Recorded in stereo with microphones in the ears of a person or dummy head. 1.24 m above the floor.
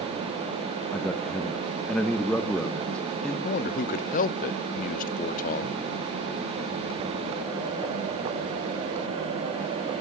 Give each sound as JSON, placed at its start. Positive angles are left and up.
{"t": 0.9, "sound": "a man speaking", "side_deg": 5, "distance_m": 1.2}
{"t": 3.5, "sound": "a man speaking", "side_deg": 45, "distance_m": 0.7}